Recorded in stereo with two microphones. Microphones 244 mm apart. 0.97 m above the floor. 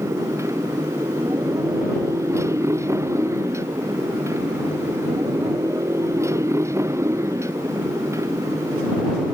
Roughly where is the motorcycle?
Centre.